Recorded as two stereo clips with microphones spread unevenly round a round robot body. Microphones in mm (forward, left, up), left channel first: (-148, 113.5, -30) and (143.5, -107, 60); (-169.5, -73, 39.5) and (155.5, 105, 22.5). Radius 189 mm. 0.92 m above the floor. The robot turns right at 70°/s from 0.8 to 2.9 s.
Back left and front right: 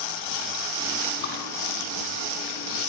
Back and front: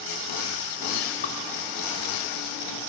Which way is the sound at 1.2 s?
140° left.